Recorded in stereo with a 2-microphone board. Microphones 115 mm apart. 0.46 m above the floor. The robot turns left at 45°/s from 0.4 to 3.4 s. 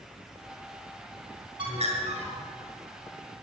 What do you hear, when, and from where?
1.6 s a bird: 50° right, 5.5 m; by 2.4 s 85° right, 5.5 m